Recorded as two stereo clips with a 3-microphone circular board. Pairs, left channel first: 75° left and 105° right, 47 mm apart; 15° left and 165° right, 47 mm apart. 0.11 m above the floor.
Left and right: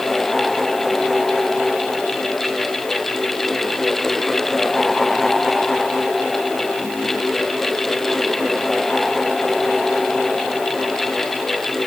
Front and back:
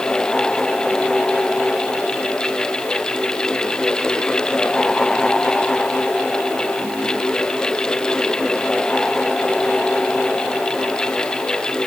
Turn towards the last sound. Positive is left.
No sound to turn to.